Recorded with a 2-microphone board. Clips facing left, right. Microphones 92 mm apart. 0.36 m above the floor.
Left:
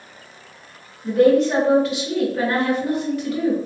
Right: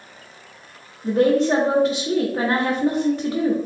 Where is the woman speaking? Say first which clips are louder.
Left 2 dB; 30° right (ahead or behind), 0.9 m.